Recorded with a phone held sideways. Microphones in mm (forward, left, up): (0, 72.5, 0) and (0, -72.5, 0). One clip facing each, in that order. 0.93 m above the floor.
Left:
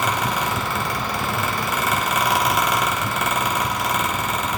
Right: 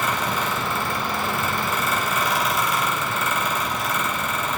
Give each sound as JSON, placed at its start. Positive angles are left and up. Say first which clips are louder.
{"t": 0.0, "sound": "a fan", "louder": "left 2 dB", "side_deg": 75, "distance_m": 1.2}